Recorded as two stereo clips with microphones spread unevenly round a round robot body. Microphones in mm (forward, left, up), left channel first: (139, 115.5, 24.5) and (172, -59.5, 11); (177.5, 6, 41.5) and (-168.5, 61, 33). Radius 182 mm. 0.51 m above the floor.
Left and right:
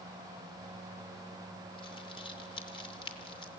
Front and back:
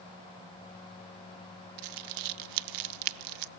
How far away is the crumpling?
About 0.6 m.